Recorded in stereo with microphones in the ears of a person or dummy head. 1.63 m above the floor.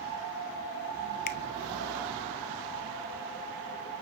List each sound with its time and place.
1.3 s a finger snap: 45° left (ahead or behind), 1.2 m